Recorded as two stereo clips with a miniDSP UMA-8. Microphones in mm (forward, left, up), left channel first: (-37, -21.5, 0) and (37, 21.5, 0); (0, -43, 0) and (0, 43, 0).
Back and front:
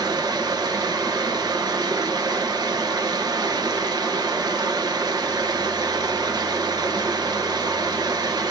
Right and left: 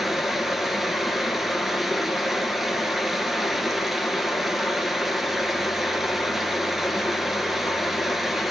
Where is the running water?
5° left, 1.2 m.